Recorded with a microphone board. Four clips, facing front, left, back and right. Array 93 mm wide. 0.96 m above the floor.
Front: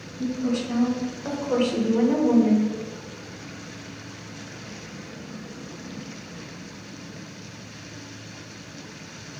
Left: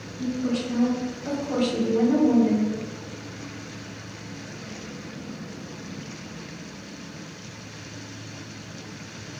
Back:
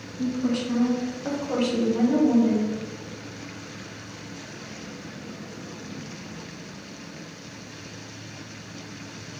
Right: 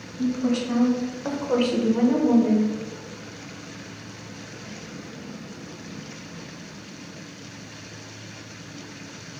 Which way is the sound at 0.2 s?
110° right.